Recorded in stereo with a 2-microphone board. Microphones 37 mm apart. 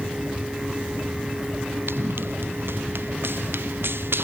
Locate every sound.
1.9 s running footsteps: 85° right